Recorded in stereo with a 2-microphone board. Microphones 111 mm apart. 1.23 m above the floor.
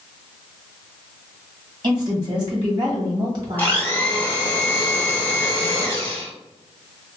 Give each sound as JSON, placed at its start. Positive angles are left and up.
{"t": 1.8, "sound": "a woman speaking", "side_deg": -40, "distance_m": 1.6}
{"t": 3.6, "sound": "a blender", "side_deg": 15, "distance_m": 1.1}